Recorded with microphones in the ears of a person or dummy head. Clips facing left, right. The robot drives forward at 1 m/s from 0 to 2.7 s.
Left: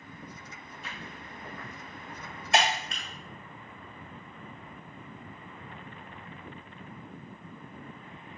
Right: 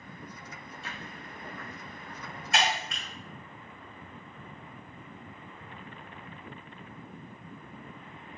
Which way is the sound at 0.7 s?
30° right (ahead or behind).